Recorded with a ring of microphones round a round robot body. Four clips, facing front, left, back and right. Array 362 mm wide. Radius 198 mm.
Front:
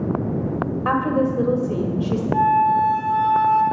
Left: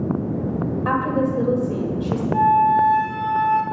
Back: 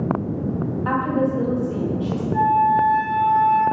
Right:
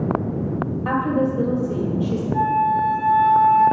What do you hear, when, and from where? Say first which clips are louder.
0.8 s a woman speaking: right 1 dB, front 1 dB; 5° left, 1.3 m
2.3 s a flute: left 4 dB, even; 20° left, 1.4 m